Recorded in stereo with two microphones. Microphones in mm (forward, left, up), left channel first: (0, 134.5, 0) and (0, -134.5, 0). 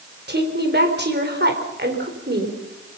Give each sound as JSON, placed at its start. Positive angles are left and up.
{"t": 0.3, "sound": "a woman speaking", "side_deg": -40, "distance_m": 4.0}